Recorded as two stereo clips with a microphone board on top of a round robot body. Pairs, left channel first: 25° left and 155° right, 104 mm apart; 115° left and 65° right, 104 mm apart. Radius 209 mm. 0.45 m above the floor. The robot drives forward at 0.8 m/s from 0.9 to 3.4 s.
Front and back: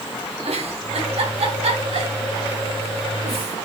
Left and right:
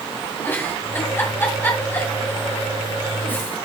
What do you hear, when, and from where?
0.5 s a giggle: 175° right, 2.5 m; by 3.5 s straight behind, 4.5 m